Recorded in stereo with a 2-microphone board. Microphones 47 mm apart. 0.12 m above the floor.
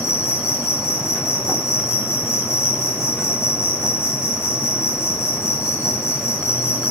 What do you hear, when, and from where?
0.0 s an insect: 75° left (ahead or behind), 0.8 m